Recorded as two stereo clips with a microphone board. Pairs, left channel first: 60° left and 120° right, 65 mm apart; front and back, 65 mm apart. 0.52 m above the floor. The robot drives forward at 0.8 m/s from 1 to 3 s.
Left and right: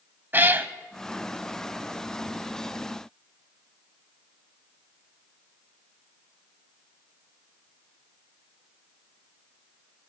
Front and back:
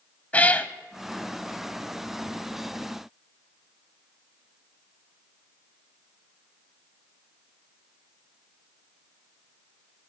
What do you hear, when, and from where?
0.3 s a cat meowing: 65° right, 0.6 m